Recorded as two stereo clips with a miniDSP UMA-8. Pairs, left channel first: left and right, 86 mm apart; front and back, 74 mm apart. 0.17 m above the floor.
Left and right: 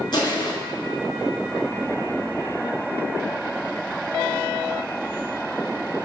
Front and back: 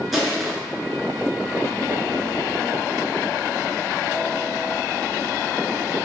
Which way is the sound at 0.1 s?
95° left.